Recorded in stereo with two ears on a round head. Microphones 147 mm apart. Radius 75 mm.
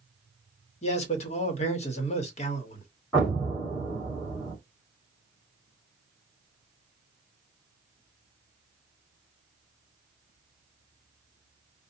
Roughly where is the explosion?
Centre.